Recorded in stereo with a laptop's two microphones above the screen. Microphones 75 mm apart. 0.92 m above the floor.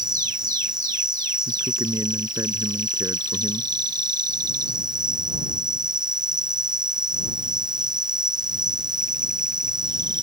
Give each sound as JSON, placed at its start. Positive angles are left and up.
{"t": 0.0, "sound": "an insect", "side_deg": -75}
{"t": 1.5, "sound": "a man speaking", "side_deg": -45}